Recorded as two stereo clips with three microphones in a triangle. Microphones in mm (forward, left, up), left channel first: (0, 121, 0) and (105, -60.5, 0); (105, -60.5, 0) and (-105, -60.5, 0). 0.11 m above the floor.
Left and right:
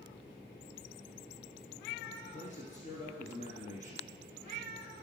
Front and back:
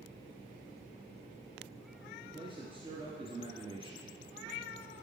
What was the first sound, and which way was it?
A man speaking, 135° left.